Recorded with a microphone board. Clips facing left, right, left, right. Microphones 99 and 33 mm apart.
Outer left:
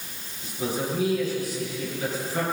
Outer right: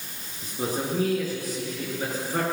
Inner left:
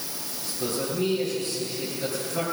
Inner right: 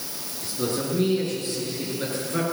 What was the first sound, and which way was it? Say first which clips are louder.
A man speaking: even, inner right 2 dB; 40° right (ahead or behind).